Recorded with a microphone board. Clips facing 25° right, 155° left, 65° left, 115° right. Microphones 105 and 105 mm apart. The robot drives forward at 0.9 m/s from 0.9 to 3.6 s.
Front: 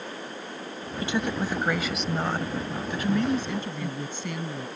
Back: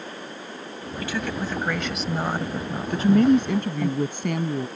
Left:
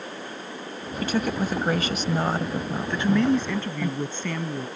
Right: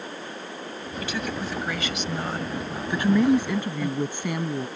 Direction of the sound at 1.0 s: 35° left.